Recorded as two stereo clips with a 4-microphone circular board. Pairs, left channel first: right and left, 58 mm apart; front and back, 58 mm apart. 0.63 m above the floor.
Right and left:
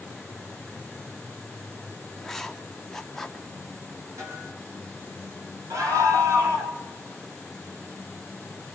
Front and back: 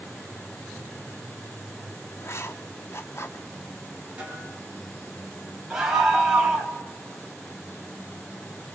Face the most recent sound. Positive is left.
turn(degrees=100)